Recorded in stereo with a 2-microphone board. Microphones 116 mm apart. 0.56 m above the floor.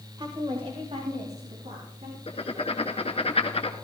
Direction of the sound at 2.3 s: 55° left (ahead or behind).